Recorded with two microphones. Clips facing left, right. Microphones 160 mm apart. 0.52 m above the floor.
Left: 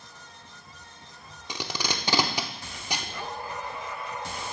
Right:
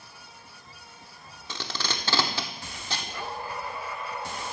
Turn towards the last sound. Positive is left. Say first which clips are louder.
# left 2 dB
turn(degrees=15)  # may be behind; listen again after turning